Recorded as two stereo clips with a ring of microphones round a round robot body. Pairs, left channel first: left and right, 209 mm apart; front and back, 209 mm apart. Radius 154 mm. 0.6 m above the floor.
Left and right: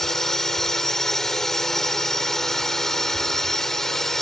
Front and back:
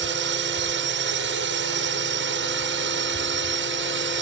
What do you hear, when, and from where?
0.0 s a drone: straight behind